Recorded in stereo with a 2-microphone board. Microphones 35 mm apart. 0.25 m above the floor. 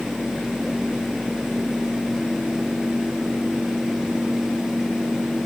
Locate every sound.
Only background noise.